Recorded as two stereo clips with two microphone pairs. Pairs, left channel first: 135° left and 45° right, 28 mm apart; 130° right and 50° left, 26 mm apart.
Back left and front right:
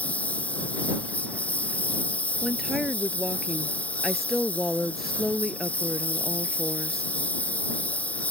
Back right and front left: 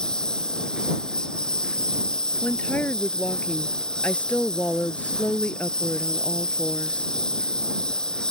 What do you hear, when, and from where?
0.0 s a lawn mower: 165° left
2.4 s a woman speaking: 130° right